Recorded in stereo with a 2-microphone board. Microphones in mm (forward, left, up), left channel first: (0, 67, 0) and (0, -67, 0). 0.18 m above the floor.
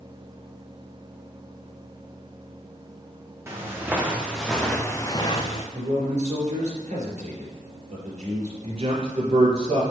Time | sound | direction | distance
3.5 | footsteps | 20° right (ahead or behind) | 2.5 m
5.7 | a man speaking | 65° right (ahead or behind) | 3.5 m
8.6 | a man speaking | 50° right (ahead or behind) | 3 m